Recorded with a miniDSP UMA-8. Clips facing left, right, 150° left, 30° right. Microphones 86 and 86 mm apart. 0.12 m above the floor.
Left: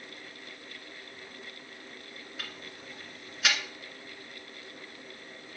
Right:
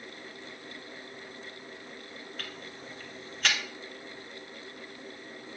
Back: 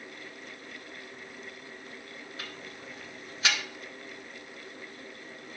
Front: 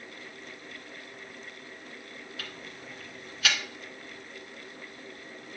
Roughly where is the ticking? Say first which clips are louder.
Right 2 dB, back 1 dB; behind.